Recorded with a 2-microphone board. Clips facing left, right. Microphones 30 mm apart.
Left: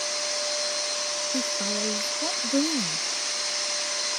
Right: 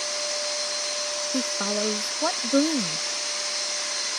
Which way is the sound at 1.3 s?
55° right (ahead or behind).